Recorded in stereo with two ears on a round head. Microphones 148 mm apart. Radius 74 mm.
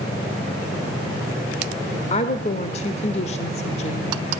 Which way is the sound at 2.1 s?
40° left (ahead or behind).